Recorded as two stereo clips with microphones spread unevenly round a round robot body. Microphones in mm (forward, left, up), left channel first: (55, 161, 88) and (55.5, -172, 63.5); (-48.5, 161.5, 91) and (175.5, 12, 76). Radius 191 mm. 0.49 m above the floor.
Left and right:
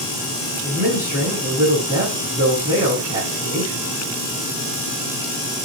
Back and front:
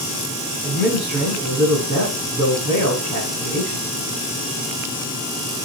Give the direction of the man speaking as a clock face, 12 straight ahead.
1 o'clock.